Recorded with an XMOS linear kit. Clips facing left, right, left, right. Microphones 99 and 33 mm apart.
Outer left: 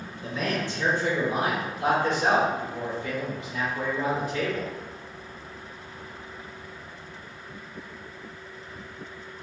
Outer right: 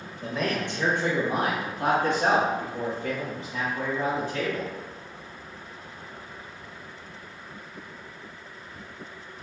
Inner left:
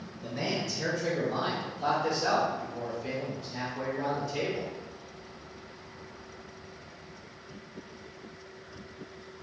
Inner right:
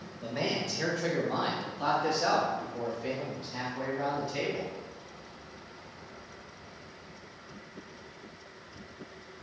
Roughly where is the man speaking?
Right.